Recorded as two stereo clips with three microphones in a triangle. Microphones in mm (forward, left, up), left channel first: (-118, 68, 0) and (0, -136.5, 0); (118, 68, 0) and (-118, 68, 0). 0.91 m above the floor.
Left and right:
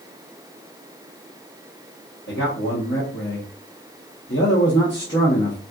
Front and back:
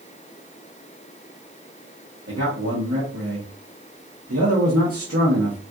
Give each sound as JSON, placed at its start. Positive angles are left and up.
{"t": 2.3, "sound": "a man speaking", "azimuth_deg": 160, "distance_m": 1.1}